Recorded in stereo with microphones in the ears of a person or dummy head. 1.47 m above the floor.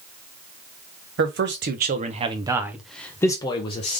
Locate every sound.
1.2 s a man speaking: 60° right (ahead or behind), 1.1 m; by 4.0 s 35° left (ahead or behind), 1.2 m